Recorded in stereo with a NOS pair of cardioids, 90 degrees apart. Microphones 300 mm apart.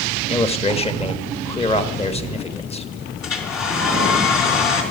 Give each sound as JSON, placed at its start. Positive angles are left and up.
{"t": 0.2, "sound": "a man speaking", "azimuth_deg": 20, "distance_m": 1.2}
{"t": 3.2, "sound": "a hair dryer", "azimuth_deg": 65, "distance_m": 4.0}